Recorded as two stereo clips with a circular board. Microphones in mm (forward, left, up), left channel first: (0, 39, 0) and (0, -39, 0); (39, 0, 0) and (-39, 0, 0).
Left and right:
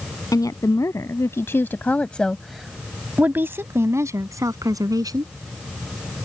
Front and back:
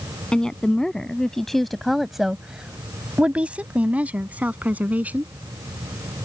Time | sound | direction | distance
0.3 | a woman speaking | 75° left | ?